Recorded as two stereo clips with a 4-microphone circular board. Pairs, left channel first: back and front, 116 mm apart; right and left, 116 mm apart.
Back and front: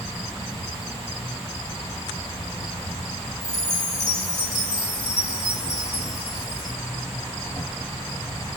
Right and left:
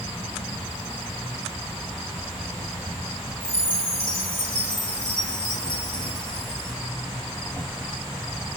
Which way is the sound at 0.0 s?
165° left.